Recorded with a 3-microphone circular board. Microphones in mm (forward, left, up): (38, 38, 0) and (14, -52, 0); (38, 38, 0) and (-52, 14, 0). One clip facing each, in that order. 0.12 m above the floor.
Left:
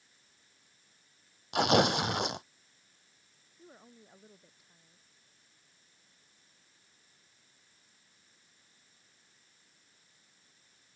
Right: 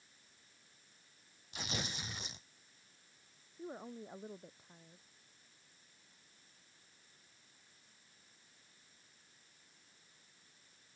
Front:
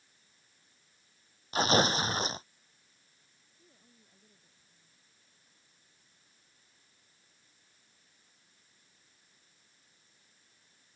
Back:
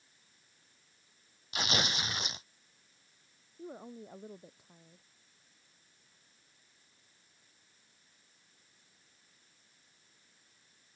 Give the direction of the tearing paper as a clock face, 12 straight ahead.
10 o'clock.